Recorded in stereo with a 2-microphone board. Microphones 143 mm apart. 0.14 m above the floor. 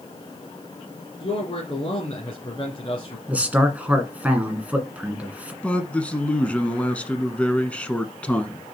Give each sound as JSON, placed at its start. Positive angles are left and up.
{"t": 1.2, "sound": "a man speaking", "side_deg": 35, "distance_m": 2.0}
{"t": 3.3, "sound": "a man speaking", "side_deg": -10, "distance_m": 1.7}
{"t": 5.6, "sound": "a man speaking", "side_deg": 10, "distance_m": 1.1}